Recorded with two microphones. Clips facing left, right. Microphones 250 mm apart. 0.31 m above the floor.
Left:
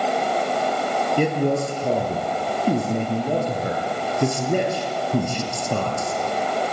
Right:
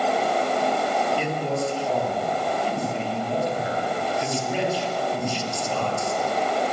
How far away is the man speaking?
About 6 m.